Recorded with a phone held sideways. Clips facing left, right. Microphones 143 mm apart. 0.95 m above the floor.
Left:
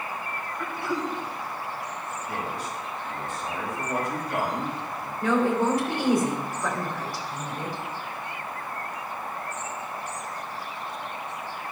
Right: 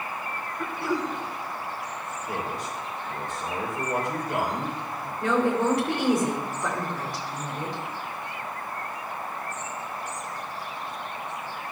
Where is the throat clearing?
30° right (ahead or behind), 1.3 m.